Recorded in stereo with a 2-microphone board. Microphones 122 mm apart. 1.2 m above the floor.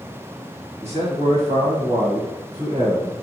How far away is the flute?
No flute in this recording.